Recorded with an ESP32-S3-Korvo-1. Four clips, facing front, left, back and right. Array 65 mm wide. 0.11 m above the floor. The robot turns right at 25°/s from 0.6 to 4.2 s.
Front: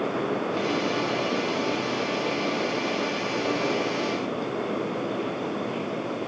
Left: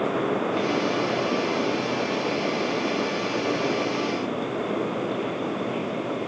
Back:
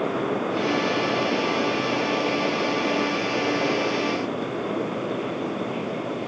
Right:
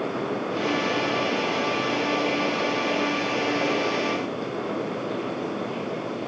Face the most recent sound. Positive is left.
No sound to turn to.